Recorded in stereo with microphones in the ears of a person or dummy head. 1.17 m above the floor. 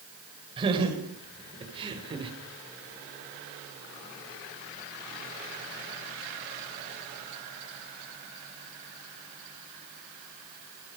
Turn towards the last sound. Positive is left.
turn(degrees=-25)  # may be behind; listen again after turning